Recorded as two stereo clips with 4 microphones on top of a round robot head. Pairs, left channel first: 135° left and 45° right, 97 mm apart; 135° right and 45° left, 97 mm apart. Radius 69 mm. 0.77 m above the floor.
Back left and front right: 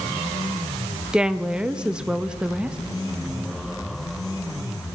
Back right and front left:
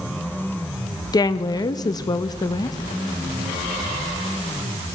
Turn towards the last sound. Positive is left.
turn(degrees=-120)